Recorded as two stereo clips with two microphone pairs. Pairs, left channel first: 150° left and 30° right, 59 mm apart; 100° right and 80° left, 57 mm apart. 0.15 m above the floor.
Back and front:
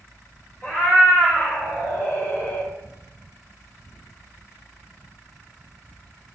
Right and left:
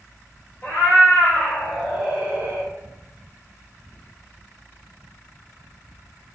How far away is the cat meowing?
About 1.6 m.